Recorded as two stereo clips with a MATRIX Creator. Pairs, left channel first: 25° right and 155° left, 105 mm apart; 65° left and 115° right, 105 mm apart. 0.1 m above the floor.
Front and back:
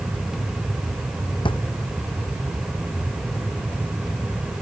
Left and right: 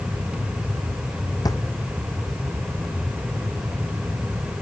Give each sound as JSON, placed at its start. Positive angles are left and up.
{"t": 1.4, "sound": "a drawer", "azimuth_deg": 15}